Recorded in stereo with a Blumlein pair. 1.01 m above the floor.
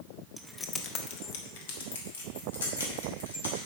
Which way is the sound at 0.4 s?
Straight ahead.